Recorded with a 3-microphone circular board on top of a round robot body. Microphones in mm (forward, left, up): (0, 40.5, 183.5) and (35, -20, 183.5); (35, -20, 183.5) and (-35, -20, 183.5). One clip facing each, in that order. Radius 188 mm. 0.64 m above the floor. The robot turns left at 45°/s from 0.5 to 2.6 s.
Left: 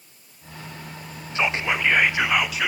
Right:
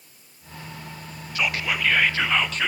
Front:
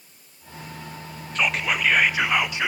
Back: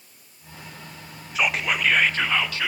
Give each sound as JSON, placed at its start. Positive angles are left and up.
{"t": 1.4, "sound": "whispering", "azimuth_deg": 105, "distance_m": 0.5}